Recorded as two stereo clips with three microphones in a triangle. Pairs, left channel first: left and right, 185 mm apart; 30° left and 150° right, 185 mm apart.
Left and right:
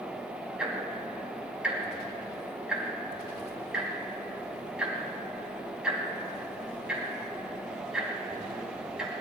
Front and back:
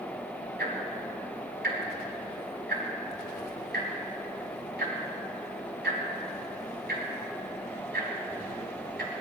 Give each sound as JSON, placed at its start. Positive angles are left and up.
{"t": 0.6, "sound": "ticking", "azimuth_deg": -175, "distance_m": 3.5}